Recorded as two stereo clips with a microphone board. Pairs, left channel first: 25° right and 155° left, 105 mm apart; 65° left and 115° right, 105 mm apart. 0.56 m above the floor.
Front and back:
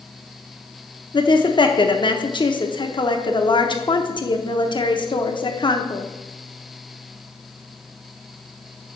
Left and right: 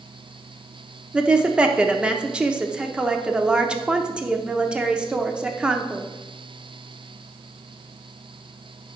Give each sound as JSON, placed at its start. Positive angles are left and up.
{"t": 1.1, "sound": "a woman speaking", "azimuth_deg": -35, "distance_m": 0.9}